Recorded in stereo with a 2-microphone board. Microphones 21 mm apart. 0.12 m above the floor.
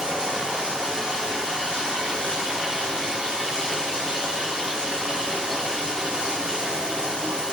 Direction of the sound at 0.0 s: 65° right (ahead or behind).